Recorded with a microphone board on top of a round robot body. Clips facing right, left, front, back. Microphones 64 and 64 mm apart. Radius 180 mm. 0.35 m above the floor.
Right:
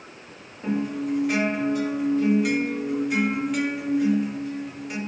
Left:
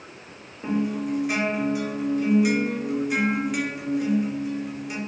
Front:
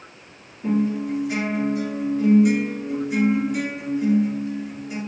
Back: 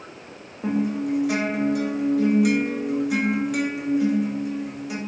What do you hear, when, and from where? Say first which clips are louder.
0.6 s a guitar: left 1 dB, front 1 dB; 175° left, 0.9 m